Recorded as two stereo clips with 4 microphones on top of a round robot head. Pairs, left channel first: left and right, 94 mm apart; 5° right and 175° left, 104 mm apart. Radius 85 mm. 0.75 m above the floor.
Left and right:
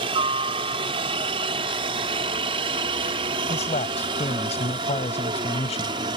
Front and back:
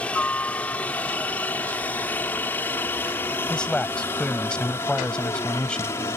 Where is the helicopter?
85° right; by 6.2 s 70° right.